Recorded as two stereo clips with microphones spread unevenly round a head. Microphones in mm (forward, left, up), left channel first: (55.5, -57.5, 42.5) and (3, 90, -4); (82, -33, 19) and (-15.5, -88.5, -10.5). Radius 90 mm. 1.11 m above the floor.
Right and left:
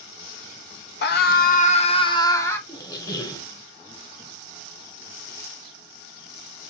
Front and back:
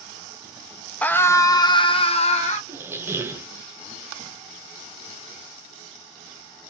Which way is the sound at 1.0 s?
50° right.